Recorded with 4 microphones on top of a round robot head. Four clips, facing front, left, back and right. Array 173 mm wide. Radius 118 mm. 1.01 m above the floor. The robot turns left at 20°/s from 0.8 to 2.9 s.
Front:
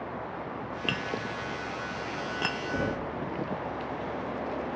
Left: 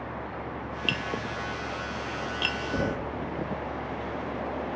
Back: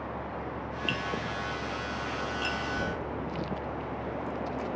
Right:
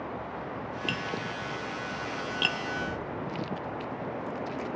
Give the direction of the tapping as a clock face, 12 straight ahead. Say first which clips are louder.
Left 3 dB, even; 12 o'clock.